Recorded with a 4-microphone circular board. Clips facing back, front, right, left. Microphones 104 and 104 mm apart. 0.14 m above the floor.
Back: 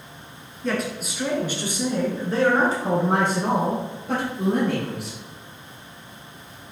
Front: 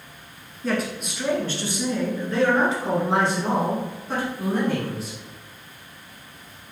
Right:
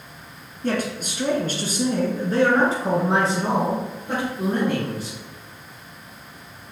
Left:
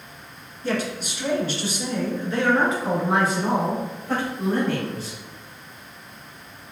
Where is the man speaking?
85° right, 1.5 m; by 5.2 s 165° right, 2.5 m.